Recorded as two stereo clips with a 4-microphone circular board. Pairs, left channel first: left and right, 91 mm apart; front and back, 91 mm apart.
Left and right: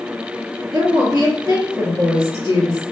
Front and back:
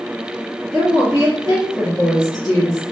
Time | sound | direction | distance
0.7 | a woman speaking | 115° right | 2 m